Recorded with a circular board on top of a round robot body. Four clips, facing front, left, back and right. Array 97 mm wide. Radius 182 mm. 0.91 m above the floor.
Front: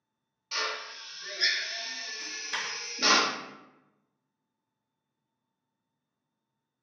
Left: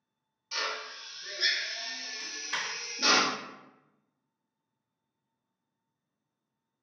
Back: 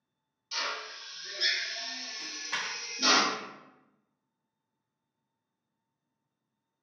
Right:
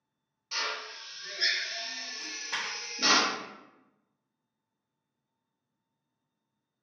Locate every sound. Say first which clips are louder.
0.5 s a drill: even, front 2 dB; 25° right, 1.1 m
2.2 s a dropped coin: even, even; 130° right, 0.7 m